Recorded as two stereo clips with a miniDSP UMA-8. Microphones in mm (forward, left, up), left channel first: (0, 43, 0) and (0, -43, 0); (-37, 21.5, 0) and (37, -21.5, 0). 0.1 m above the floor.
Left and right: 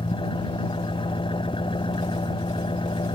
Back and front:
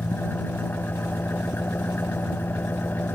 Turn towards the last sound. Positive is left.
turn(degrees=85)